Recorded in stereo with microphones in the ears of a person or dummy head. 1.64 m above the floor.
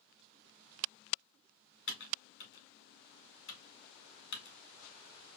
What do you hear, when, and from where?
1.9 s typing on a keyboard: 50° left (ahead or behind), 1.2 m